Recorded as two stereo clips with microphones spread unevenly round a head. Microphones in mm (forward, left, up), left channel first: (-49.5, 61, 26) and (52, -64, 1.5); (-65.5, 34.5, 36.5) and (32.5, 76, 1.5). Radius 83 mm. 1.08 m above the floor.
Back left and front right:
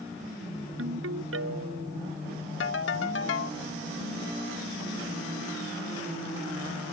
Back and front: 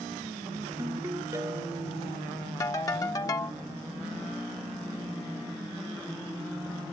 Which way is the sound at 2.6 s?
145° left.